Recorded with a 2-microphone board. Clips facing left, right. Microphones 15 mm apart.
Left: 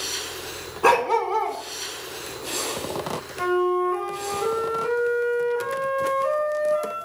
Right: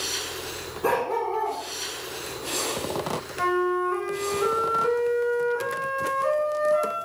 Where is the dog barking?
55° left (ahead or behind), 1.4 m.